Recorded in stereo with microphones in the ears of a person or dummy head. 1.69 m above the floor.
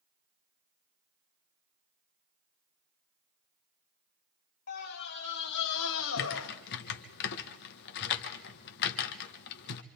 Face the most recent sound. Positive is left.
turn(degrees=60)  # may be behind; listen again after turning